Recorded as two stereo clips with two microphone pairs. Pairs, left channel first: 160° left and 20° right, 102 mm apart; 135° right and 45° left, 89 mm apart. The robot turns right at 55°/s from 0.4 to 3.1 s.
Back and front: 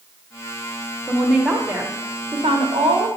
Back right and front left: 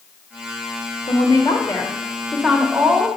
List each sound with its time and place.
1.1 s a woman speaking: 125° right, 1.4 m; by 3.1 s 10° right, 1.4 m